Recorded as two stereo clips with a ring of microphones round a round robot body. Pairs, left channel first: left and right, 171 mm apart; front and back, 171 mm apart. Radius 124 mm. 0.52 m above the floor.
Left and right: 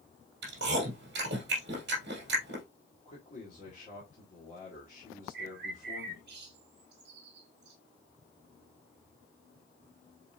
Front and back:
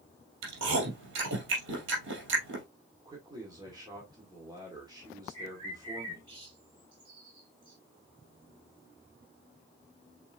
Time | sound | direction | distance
0.4 | chewing | 140° right | 3 m
3.0 | a man speaking | 120° left | 1.8 m
5.3 | a bird | 115° right | 1.9 m